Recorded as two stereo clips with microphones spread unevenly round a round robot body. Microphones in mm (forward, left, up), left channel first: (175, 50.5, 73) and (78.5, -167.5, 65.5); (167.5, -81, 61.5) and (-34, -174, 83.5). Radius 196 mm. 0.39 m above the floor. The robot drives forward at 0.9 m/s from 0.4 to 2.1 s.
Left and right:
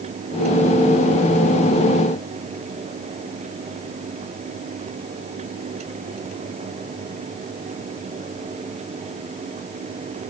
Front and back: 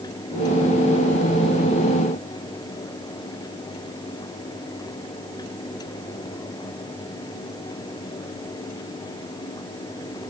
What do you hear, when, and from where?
Only background noise.